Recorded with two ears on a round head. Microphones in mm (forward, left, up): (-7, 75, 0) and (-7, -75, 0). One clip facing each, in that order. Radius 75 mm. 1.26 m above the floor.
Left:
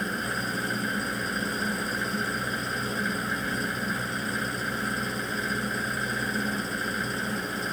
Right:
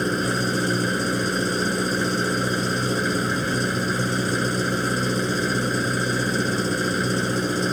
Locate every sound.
0.0 s an engine running: 55° right (ahead or behind)